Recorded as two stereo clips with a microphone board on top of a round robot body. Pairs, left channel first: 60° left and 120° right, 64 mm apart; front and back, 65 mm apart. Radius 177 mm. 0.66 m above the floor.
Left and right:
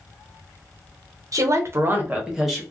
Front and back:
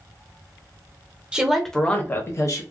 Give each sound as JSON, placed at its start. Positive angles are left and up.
{"t": 1.3, "sound": "a woman speaking", "azimuth_deg": -105, "distance_m": 1.1}